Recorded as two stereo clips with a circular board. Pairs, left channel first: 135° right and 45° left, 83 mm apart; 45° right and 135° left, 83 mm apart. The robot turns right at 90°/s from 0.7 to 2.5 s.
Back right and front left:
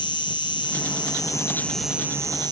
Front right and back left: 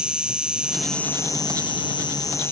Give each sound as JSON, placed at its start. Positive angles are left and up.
{"t": 0.0, "sound": "an insect", "azimuth_deg": -145}